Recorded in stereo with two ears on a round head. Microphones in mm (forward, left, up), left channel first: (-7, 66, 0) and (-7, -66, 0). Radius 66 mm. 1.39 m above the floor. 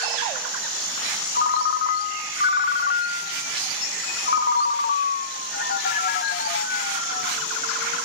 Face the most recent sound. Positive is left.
turn(degrees=65)  # may be behind; listen again after turning